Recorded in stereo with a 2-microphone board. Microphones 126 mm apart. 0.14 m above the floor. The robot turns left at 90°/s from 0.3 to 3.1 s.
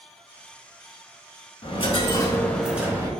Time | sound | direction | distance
1.6 | a dropped coin | 90° left | 0.6 m